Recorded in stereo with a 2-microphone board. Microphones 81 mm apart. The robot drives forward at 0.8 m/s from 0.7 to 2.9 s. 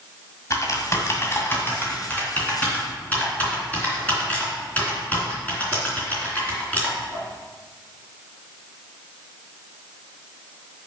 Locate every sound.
0.5 s typing on a keyboard: 40° left (ahead or behind), 1.6 m; by 7.2 s 20° left (ahead or behind), 3 m